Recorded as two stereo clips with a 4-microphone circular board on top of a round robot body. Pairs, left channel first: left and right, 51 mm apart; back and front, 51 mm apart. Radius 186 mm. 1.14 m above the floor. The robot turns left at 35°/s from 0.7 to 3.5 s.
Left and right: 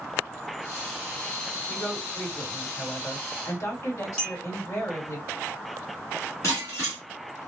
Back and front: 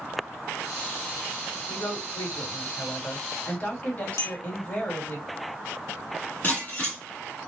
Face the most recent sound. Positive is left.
turn(degrees=120)